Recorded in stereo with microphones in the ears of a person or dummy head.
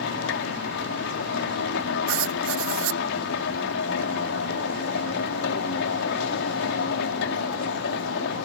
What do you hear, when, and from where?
0.0 s a machine running: 65° left (ahead or behind)
2.1 s writing: 70° right (ahead or behind)